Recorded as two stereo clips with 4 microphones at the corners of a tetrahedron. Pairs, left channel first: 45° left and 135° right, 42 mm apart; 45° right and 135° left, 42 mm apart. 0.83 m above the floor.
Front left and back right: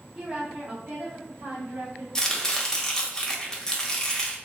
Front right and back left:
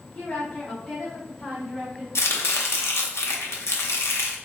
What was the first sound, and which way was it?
A woman speaking, 65° right.